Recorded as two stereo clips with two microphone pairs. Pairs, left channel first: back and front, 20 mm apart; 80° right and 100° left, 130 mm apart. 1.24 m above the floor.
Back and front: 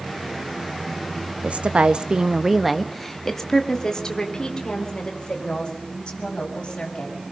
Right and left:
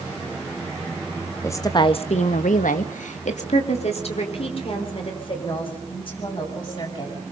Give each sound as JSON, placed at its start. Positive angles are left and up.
{"t": 1.4, "sound": "a woman speaking", "azimuth_deg": -10, "distance_m": 1.8}